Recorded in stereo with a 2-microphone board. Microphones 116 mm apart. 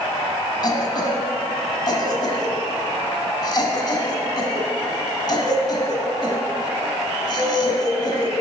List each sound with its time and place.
0.6 s a cough: 40° left (ahead or behind), 1.2 m